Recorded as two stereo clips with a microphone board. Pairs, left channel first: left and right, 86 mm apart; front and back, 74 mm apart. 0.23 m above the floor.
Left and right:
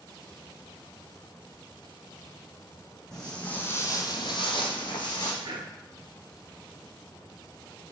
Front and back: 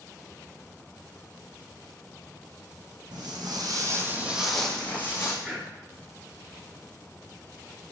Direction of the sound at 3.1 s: 175° left.